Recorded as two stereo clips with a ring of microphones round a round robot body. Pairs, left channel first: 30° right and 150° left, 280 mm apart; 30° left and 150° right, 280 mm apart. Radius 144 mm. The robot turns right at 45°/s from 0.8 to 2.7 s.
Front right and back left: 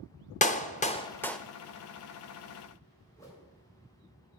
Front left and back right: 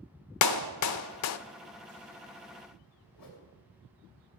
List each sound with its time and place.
0.4 s a clap: 30° left, 0.6 m; by 1.4 s 60° left, 0.6 m
3.1 s a whoosh: 50° left, 3.5 m